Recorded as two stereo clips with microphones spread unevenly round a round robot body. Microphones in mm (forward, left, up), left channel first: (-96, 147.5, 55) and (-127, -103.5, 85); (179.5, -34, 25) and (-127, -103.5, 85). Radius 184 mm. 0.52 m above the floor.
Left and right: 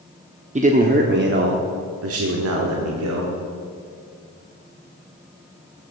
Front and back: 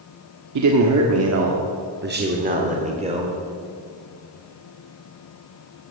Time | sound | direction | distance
0.6 | a man speaking | 155° right | 1.5 m